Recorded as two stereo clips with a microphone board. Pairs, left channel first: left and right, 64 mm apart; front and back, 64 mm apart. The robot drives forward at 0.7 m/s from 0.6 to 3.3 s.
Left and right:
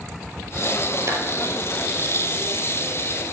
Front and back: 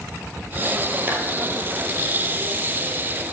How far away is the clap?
About 1.9 m.